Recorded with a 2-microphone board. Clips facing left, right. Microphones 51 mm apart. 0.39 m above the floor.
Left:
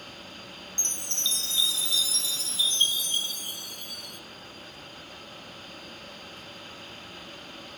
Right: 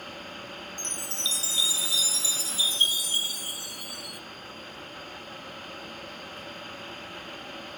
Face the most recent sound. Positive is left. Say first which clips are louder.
# left 2 dB
turn(degrees=-5)  # may be behind; listen again after turning